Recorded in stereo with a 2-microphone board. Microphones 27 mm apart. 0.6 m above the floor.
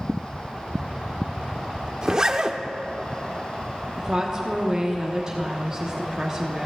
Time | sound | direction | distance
2.0 | a zipper | 25° right (ahead or behind) | 0.7 m
4.0 | a woman speaking | 25° right (ahead or behind) | 1.1 m